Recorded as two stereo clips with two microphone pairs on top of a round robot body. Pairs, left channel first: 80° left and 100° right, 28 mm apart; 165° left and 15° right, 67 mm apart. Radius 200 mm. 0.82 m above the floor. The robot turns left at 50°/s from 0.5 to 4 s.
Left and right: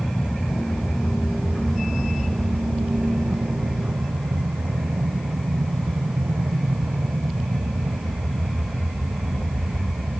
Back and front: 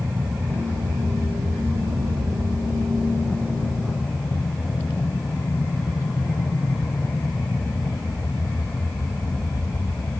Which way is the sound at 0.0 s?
50° left.